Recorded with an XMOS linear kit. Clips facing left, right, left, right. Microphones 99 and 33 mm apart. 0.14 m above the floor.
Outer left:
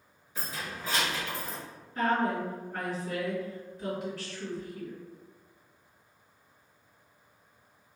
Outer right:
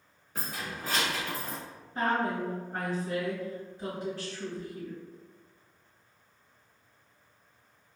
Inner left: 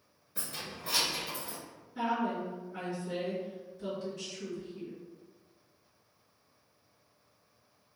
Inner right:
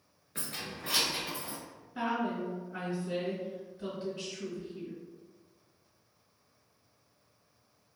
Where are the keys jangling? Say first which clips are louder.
Outer right 1 dB, inner right 1 dB; 55° right (ahead or behind), 1.4 m; by 1.6 s 35° right (ahead or behind), 1.2 m.